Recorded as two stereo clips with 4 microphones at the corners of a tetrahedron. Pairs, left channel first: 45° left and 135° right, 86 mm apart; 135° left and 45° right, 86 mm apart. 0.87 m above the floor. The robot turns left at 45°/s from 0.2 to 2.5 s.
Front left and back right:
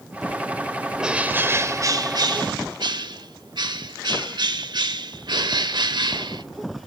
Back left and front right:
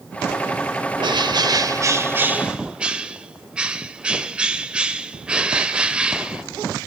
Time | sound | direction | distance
1.0 | a bird | 50° right | 1.0 m